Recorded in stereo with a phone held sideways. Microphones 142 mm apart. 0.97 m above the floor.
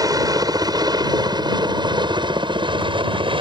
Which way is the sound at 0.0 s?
25° right (ahead or behind).